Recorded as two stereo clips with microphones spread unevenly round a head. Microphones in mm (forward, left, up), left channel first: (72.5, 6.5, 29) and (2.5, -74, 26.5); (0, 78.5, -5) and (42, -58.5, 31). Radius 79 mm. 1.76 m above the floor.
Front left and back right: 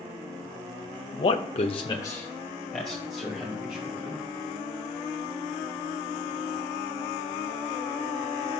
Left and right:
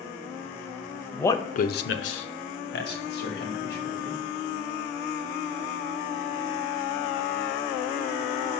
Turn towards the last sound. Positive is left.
turn(degrees=145)